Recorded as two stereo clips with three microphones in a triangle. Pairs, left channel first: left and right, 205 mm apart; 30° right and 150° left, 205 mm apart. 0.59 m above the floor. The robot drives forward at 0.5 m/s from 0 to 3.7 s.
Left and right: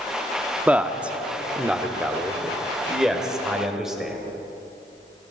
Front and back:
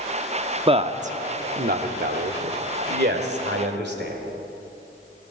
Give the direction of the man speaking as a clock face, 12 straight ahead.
6 o'clock.